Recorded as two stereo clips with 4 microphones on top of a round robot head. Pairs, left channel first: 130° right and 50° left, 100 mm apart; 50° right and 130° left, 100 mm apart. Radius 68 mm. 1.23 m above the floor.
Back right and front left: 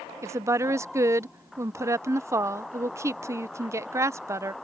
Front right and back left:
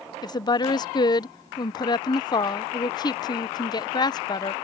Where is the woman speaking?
10° right.